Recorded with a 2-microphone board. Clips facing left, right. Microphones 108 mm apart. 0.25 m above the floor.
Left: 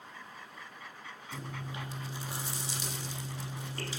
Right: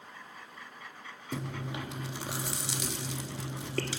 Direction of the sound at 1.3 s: 75° right (ahead or behind).